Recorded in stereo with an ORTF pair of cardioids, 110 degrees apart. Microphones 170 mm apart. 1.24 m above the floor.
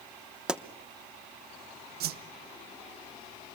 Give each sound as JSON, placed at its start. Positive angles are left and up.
{"t": 0.5, "sound": "a pop", "azimuth_deg": -5, "distance_m": 1.0}
{"t": 2.0, "sound": "a whoosh", "azimuth_deg": -65, "distance_m": 0.9}